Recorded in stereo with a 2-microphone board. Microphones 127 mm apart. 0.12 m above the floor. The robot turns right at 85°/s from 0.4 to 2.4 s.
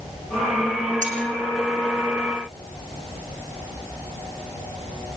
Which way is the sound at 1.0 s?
75° right (ahead or behind).